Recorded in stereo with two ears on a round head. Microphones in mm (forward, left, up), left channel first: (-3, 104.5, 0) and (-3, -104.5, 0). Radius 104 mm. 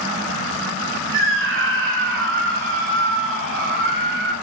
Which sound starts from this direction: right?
A scream, at 1.1 s.